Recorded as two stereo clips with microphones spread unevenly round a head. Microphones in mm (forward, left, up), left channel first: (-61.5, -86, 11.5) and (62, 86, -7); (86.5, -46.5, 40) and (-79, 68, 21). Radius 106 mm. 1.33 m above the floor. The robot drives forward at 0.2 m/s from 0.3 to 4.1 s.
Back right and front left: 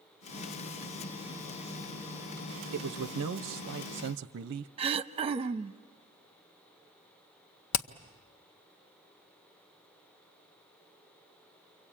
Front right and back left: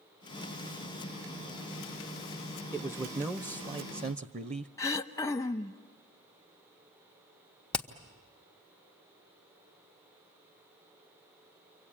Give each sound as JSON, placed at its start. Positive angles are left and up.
{"t": 2.7, "sound": "a man speaking", "azimuth_deg": 65, "distance_m": 0.7}
{"t": 4.8, "sound": "throat clearing", "azimuth_deg": 10, "distance_m": 0.6}
{"t": 7.7, "sound": "hammering", "azimuth_deg": -120, "distance_m": 0.9}